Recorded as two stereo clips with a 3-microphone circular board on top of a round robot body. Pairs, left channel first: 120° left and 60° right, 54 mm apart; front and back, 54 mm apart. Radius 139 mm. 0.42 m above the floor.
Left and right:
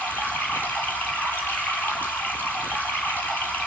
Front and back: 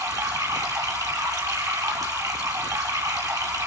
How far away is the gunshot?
I don't hear a gunshot.